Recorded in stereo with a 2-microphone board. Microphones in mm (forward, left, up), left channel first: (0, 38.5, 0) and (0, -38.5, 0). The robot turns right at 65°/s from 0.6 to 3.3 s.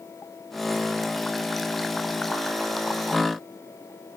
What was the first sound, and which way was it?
Only background noise.